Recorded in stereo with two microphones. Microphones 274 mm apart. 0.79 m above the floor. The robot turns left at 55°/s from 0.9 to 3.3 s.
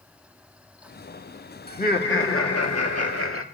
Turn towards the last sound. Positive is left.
turn(degrees=65)